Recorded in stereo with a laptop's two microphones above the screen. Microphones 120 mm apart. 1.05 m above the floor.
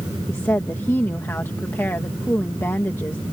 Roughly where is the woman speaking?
Left.